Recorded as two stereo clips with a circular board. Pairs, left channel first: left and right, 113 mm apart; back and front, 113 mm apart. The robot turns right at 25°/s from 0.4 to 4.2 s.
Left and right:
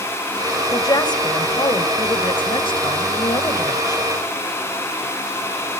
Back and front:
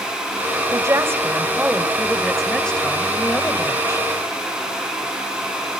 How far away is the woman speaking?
About 1.6 m.